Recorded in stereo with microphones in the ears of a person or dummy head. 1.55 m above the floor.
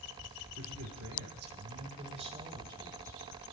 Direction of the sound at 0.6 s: 80° right.